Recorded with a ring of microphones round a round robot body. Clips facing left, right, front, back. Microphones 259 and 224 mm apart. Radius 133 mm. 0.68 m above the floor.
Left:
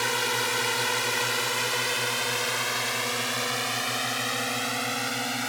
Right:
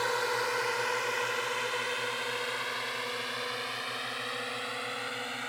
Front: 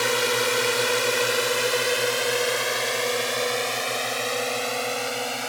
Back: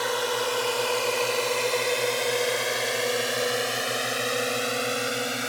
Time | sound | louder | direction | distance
0.0 | a drone | left 1 dB, front 3 dB | 55° left | ?